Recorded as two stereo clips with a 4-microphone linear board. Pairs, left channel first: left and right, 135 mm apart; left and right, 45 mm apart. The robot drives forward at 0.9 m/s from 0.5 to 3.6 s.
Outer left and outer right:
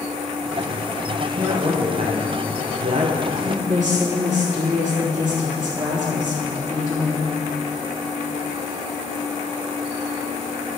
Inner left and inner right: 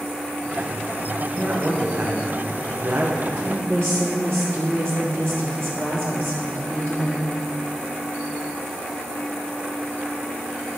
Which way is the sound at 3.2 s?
70° right (ahead or behind).